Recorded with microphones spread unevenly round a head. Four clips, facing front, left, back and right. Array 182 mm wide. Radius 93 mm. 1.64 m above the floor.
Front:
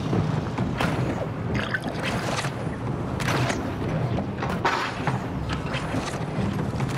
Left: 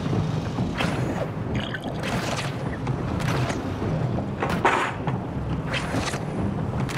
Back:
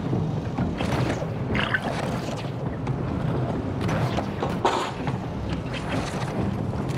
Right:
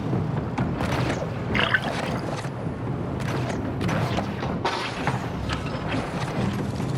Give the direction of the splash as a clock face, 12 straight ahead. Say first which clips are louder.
Right 5 dB, back 3 dB; 3 o'clock.